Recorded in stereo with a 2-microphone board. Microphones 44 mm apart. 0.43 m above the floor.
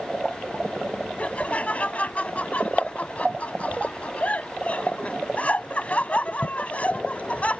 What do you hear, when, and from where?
1.2 s laughter: 35° left (ahead or behind)